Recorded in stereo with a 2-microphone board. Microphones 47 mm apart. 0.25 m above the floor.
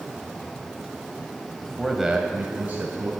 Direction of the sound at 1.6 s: 15° left (ahead or behind).